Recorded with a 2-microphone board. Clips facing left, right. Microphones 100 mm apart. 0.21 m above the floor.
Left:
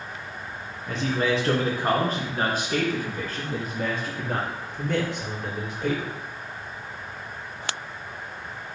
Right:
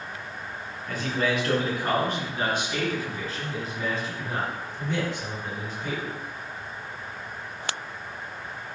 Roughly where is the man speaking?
Left.